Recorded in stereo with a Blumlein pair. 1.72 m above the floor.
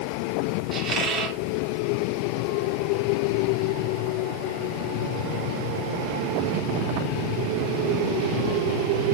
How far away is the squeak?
About 2.5 m.